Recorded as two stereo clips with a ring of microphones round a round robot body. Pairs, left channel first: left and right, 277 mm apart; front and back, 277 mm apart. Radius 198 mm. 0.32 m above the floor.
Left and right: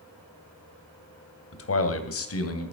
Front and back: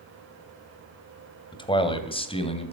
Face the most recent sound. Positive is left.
turn(degrees=70)